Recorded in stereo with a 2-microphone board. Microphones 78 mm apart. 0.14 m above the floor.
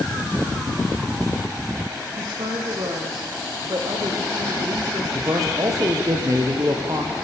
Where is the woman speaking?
60° right (ahead or behind), 6 m.